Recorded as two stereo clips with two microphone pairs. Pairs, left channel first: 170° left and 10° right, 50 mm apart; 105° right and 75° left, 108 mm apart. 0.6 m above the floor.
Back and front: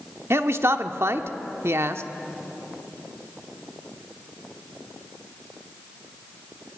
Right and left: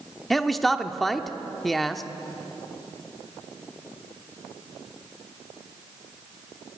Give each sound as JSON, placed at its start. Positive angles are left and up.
{"t": 0.3, "sound": "a man speaking", "azimuth_deg": -15, "distance_m": 1.0}